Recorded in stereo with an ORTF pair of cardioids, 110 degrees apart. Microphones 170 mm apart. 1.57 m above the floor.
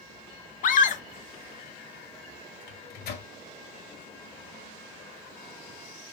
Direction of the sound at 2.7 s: 70° left.